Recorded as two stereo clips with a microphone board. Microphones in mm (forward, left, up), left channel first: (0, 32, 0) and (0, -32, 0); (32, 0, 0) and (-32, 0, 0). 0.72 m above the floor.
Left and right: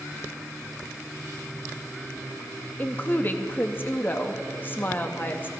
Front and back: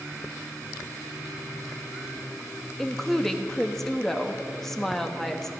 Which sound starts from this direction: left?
A woman speaking, at 2.8 s.